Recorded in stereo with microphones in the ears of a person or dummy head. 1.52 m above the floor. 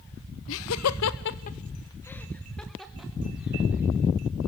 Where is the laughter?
75° left (ahead or behind), 1.1 m; by 3.9 s 10° right (ahead or behind), 3 m.